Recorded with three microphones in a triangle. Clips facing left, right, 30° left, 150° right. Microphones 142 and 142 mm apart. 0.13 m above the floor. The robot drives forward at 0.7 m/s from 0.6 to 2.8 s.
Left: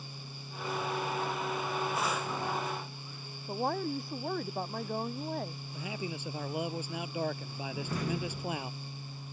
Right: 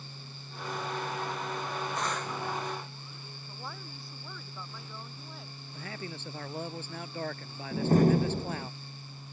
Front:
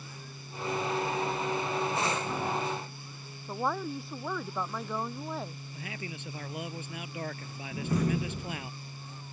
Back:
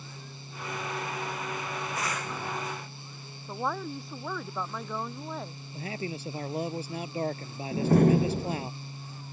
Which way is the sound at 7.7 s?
125° right.